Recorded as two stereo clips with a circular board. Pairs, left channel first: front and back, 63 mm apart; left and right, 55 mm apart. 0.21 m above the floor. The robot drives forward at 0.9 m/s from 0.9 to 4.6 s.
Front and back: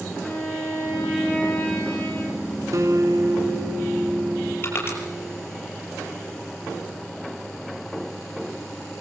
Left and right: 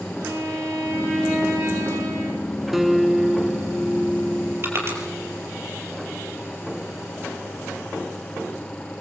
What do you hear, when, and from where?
0.2 s a violin: 70° right, 9.5 m; by 2.5 s 80° right, 9 m
2.7 s a guitar: 175° right, 2 m; by 5.5 s straight behind, 3.5 m
4.6 s crushing: 50° right, 6 m